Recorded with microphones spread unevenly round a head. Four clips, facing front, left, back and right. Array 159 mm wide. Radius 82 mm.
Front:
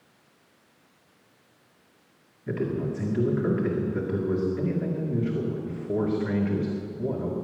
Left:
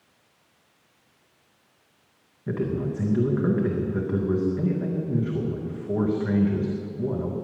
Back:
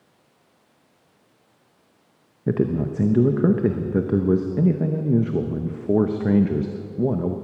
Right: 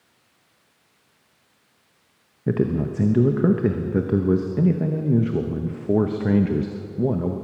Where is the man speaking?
135° right, 0.8 m.